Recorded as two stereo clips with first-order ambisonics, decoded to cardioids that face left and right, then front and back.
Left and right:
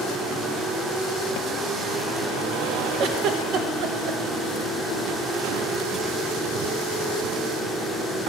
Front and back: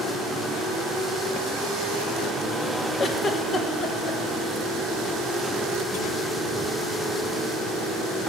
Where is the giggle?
65° right, 0.9 m.